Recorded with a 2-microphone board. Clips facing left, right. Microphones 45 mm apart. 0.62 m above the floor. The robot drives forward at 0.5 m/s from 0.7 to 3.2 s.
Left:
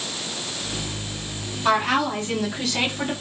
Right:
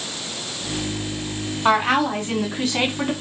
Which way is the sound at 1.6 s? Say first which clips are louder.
Right 2 dB; 30° right (ahead or behind).